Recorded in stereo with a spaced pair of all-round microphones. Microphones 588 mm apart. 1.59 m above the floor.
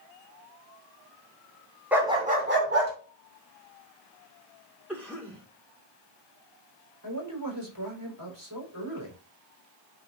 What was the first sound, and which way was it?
A dog barking, centre (ahead or behind).